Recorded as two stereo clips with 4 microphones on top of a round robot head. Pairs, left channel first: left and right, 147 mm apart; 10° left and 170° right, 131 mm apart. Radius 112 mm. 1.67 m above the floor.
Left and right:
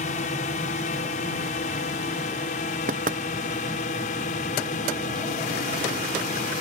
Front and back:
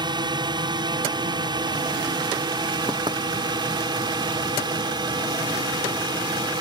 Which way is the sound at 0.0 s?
135° left.